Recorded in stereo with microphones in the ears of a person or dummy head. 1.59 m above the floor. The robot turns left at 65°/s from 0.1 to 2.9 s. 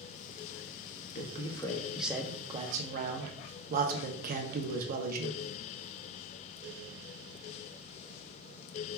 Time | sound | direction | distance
1.1 | a man speaking | 60° left | 0.7 m